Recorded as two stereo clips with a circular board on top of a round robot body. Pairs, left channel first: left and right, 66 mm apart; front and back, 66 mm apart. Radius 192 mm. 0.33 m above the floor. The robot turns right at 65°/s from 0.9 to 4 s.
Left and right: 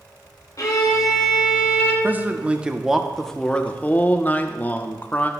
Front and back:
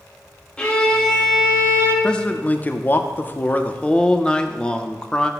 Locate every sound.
0.6 s a violin: 70° left, 1.8 m; by 1.9 s 140° left, 1.8 m
2.0 s a man speaking: 65° right, 0.9 m; by 5.3 s 60° left, 0.9 m